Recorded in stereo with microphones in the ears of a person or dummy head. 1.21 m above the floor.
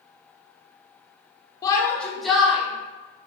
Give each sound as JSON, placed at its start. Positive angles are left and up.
{"t": 1.6, "sound": "a shout", "side_deg": 20, "distance_m": 0.8}